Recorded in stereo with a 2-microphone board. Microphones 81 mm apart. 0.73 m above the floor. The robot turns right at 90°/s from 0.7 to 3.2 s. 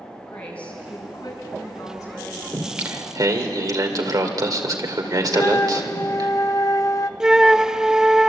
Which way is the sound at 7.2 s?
5° right (ahead or behind).